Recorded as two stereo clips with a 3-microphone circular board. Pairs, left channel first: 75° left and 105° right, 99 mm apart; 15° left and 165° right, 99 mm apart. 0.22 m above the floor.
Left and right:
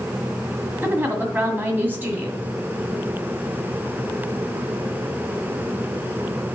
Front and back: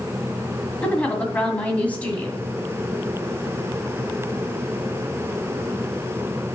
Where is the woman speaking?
50° right, 1.7 m.